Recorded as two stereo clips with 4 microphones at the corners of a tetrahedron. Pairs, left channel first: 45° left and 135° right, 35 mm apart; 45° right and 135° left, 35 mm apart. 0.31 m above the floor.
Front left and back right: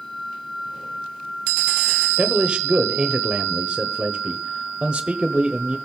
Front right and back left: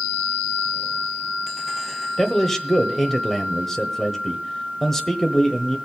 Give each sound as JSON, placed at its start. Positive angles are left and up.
{"t": 2.2, "sound": "a man speaking", "azimuth_deg": -115, "distance_m": 1.1}